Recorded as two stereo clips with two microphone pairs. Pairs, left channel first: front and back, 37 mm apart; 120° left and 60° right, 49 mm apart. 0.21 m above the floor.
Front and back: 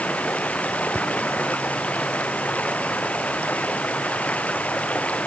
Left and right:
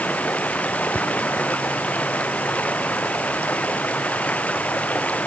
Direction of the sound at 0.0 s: 60° left.